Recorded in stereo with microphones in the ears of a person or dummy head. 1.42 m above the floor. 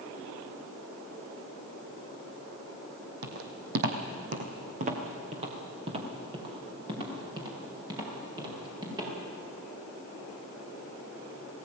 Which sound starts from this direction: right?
Footsteps, at 3.2 s.